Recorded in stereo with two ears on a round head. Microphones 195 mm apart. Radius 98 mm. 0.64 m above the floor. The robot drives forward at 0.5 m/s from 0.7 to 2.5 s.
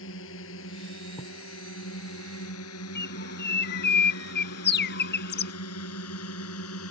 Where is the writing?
25° left (ahead or behind).